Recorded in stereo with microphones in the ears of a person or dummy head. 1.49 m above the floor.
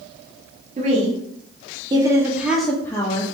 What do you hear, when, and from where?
0.8 s a woman speaking: 40° right (ahead or behind), 1.3 m; by 3.2 s 30° left (ahead or behind), 0.6 m